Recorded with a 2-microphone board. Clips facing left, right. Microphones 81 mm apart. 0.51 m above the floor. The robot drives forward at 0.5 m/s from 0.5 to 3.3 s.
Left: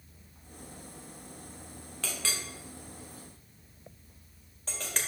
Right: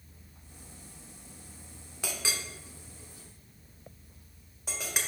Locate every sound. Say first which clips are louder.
2.0 s a clink: right 1 dB; 15° right (ahead or behind), 1.0 m; by 5.0 s 10° right (ahead or behind), 1.5 m